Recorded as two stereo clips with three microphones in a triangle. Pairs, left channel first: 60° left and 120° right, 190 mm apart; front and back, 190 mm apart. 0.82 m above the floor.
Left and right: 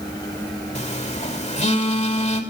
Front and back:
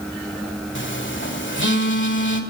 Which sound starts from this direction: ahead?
A phone buzzing, at 0.8 s.